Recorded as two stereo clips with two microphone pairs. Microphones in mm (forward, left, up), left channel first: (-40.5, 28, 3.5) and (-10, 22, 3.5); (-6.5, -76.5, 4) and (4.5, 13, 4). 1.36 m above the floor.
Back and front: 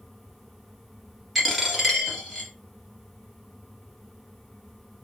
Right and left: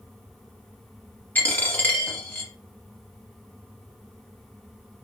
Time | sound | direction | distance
1.4 | a dropped coin | 90° right | 1.3 m